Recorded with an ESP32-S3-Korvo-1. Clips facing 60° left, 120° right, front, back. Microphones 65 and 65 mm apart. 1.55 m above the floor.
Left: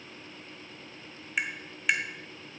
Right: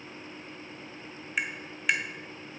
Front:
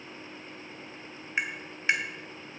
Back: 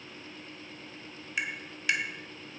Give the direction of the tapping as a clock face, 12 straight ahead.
1 o'clock.